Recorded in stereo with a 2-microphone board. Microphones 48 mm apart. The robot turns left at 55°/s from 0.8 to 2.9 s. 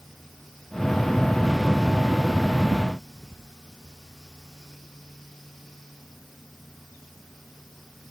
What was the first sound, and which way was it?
Only background noise.